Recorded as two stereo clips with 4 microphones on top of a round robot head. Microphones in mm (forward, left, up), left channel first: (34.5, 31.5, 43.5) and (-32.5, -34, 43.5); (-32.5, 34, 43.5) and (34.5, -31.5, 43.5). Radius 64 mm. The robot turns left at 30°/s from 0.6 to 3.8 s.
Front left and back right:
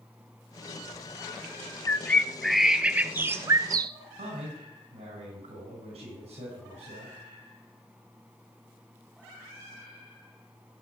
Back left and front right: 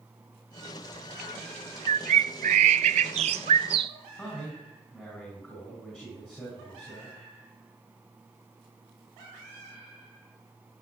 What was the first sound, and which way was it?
A bird, 25° right.